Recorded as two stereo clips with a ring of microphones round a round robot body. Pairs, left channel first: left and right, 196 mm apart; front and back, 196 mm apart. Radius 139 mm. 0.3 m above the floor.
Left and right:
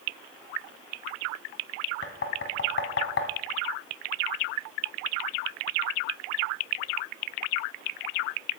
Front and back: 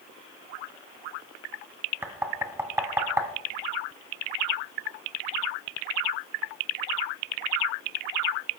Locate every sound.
2.0 s knocking: 105° left, 1.7 m